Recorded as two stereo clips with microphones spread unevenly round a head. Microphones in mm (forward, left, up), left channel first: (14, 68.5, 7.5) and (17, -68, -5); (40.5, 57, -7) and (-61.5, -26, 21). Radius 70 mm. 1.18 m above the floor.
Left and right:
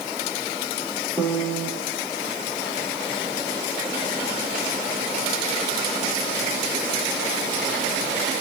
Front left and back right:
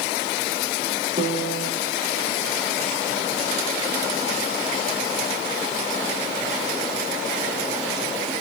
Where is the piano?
175° left, 5.5 m.